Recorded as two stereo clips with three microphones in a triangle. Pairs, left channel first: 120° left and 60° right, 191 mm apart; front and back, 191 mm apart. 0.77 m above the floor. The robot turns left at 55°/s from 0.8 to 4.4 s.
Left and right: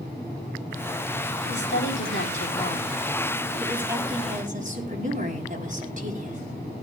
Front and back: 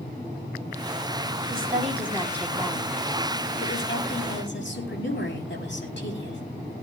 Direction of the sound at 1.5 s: 145° left.